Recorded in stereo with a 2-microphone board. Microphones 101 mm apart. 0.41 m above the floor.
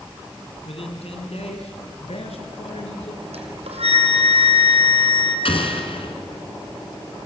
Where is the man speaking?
70° left (ahead or behind), 3 m; by 3.2 s 75° left (ahead or behind), 6 m.